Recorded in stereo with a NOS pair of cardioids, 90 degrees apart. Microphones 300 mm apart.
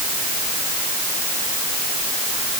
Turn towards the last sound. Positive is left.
No sound to turn to.